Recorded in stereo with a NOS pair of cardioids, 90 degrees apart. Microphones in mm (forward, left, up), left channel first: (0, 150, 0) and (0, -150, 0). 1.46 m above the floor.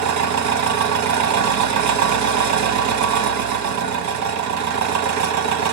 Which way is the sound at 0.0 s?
70° right.